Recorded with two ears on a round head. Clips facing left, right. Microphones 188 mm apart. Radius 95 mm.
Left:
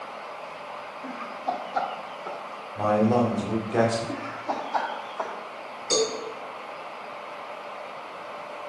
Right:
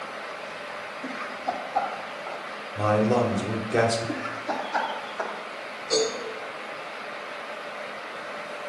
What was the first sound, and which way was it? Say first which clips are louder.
Laughter: even; 40° right (ahead or behind).